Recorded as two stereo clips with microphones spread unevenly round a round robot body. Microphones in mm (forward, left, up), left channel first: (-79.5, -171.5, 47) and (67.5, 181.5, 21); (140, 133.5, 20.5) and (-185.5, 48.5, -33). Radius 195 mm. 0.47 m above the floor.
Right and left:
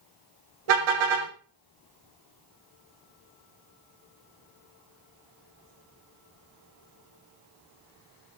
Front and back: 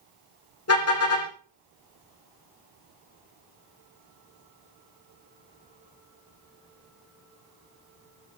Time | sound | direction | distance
0.7 | a car horn | 60° left | 9 m